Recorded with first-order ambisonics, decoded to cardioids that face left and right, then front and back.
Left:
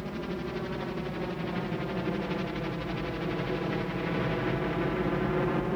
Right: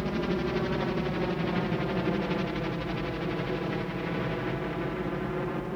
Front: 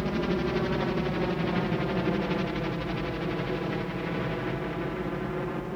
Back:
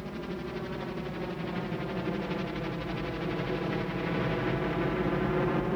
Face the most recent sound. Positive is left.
turn(degrees=145)